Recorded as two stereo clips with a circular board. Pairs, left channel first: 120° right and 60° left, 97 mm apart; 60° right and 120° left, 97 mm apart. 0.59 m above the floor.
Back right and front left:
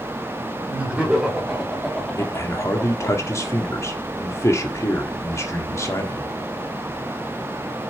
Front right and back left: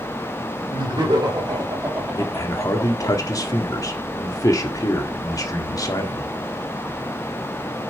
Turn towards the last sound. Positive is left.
turn(degrees=-80)